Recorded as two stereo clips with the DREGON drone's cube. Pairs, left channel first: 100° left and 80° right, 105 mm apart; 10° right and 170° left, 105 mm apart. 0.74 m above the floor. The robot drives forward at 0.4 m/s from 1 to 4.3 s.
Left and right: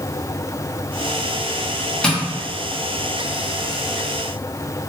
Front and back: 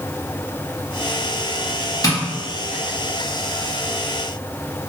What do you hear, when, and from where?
2.0 s tapping: 20° left, 1.0 m; by 2.2 s 25° left, 1.0 m